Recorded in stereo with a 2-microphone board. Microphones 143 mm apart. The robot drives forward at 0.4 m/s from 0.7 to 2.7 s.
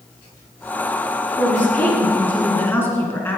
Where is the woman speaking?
10° left (ahead or behind), 3 m; by 3.4 s 15° left (ahead or behind), 3 m.